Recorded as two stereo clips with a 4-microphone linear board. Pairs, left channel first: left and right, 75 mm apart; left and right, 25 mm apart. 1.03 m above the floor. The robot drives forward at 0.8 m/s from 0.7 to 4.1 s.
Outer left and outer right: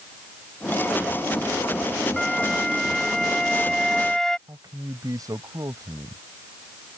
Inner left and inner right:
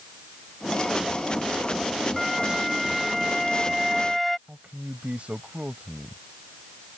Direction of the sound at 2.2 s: 5° left (ahead or behind).